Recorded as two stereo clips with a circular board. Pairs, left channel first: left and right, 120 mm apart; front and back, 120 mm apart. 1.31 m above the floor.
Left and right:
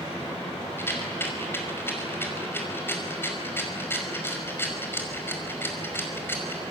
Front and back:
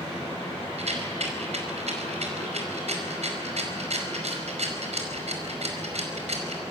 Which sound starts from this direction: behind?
A rattle, at 0.8 s.